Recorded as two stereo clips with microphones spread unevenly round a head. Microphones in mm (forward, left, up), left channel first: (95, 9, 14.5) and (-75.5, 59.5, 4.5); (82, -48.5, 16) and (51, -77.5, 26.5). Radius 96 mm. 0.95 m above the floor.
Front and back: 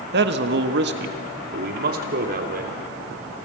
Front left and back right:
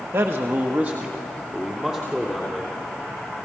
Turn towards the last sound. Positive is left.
turn(degrees=130)